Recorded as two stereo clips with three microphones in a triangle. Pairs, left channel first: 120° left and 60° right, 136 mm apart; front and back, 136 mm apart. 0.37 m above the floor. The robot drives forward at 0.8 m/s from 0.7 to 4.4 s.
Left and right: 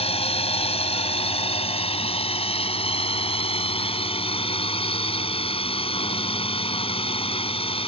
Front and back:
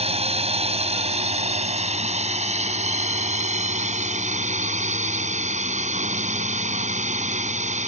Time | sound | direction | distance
0.0 | a drone | 150° left | ?